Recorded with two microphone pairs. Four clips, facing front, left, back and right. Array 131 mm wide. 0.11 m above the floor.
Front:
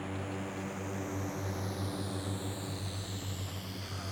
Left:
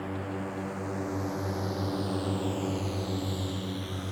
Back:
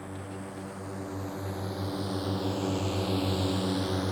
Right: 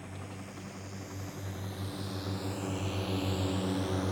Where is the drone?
90° left; by 4.1 s 160° right.